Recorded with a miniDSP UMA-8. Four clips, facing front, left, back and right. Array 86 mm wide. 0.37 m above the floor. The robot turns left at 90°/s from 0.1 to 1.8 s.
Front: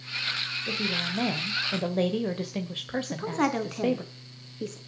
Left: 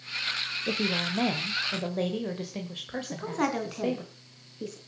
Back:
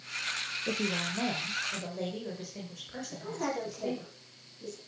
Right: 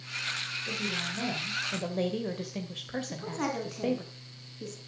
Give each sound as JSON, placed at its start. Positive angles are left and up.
{"t": 0.7, "sound": "a woman speaking", "azimuth_deg": 110, "distance_m": 1.7}
{"t": 3.0, "sound": "a woman speaking", "azimuth_deg": 25, "distance_m": 3.0}